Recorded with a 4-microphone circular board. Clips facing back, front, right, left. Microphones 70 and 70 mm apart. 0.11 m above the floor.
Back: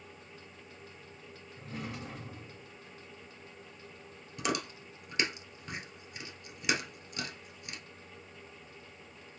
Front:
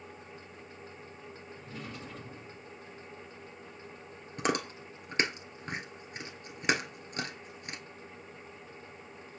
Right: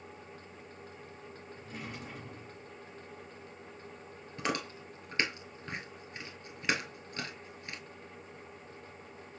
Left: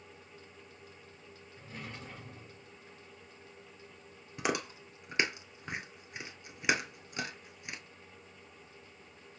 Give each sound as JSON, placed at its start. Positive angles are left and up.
{"t": 1.6, "sound": "a drawer", "azimuth_deg": -170, "distance_m": 3.0}
{"t": 4.4, "sound": "chewing", "azimuth_deg": 20, "distance_m": 1.1}